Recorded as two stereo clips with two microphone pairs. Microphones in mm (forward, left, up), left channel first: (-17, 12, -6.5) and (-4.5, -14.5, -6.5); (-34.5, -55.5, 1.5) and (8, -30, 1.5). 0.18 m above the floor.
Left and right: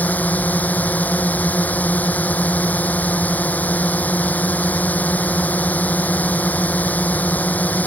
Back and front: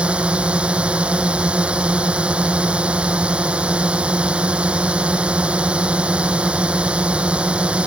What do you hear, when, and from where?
0.0 s a drone: 100° left